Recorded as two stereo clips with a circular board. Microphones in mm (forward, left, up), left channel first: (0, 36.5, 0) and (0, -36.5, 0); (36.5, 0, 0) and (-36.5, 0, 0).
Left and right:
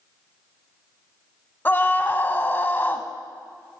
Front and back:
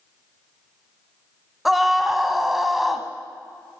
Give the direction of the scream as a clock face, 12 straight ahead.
9 o'clock.